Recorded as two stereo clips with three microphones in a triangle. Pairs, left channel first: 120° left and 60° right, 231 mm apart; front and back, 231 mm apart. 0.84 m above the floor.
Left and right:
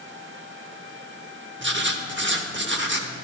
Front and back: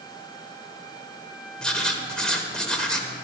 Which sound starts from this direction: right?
Writing, at 1.6 s.